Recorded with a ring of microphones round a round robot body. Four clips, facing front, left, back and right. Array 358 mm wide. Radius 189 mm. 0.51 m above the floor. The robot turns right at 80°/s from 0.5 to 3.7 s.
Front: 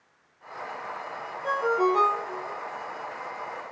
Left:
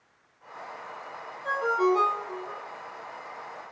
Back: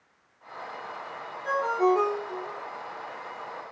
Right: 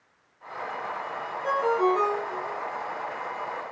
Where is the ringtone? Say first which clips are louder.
Right 1 dB, even; 40° right, 6 m; by 2.6 s 50° left, 6 m.